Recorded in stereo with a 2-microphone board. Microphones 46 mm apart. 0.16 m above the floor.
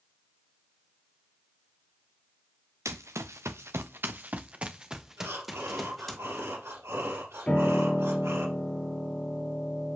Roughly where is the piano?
Left.